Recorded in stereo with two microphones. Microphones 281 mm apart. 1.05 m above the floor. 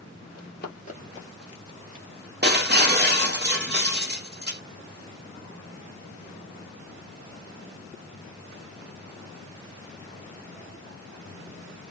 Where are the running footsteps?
45° left (ahead or behind), 1.4 m; by 2.1 s 35° right (ahead or behind), 1.2 m.